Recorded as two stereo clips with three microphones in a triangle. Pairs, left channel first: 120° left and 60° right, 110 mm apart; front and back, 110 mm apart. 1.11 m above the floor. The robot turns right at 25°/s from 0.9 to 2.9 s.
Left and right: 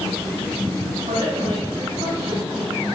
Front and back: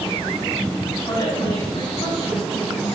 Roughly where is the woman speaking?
Ahead right.